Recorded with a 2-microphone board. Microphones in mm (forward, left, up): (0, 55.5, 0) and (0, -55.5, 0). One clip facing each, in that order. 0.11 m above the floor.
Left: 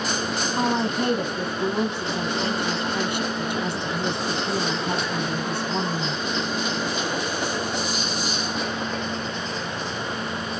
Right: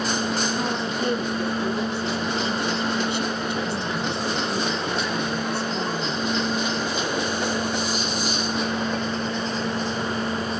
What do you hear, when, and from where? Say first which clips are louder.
0.6 s a woman speaking: left 3 dB; 65° left (ahead or behind), 3.5 m